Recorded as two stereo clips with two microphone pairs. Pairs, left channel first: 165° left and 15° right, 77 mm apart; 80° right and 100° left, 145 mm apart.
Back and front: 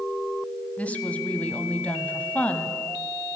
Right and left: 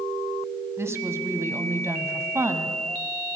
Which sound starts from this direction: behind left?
A woman speaking, at 0.8 s.